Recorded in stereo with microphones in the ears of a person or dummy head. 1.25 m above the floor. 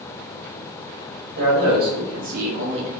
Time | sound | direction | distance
1.4 | a man speaking | 45° right (ahead or behind) | 1.4 m